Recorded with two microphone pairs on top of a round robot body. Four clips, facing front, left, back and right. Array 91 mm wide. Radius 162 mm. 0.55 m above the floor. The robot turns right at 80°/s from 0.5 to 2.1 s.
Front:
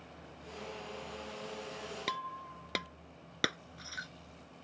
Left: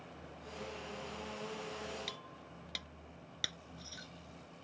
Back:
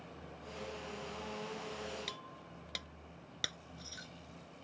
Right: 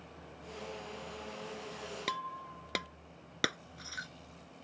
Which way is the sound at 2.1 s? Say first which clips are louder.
Right 11 dB, front 10 dB; 50° right.